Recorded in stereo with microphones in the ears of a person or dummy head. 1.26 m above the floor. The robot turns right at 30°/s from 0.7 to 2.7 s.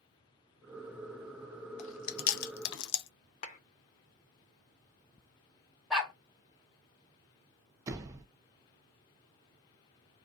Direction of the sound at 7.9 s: 20° right (ahead or behind).